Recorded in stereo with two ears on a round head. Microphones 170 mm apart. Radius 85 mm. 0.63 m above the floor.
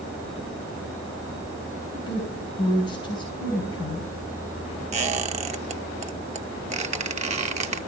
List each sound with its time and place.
1.9 s a woman speaking: 25° left (ahead or behind), 5 m
4.9 s a squeak: 35° right (ahead or behind), 0.8 m